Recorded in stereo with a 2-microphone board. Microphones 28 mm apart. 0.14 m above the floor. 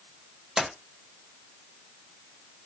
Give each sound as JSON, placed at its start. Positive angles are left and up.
{"t": 0.6, "sound": "a splash", "side_deg": -25, "distance_m": 1.0}